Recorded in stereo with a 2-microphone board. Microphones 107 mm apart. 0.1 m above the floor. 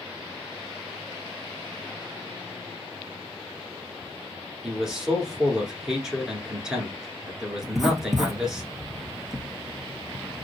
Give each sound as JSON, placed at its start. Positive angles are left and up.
{"t": 4.6, "sound": "a man speaking", "side_deg": -5, "distance_m": 1.1}
{"t": 7.6, "sound": "writing", "side_deg": -5, "distance_m": 0.7}